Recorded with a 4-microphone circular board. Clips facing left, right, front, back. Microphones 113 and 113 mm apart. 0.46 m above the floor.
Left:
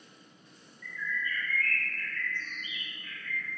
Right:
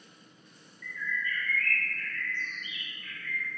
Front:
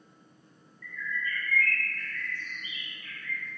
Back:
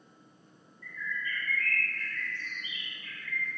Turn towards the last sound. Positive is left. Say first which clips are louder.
# right 1 dB, front 2 dB
turn(degrees=150)